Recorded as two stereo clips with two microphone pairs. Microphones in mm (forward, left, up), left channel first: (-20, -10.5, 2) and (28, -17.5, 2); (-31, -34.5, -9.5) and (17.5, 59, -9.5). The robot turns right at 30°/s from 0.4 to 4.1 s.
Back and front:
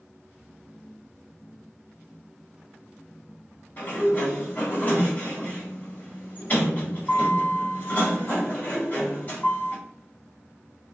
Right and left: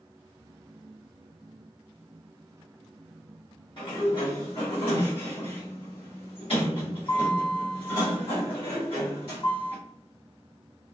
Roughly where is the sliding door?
Behind right.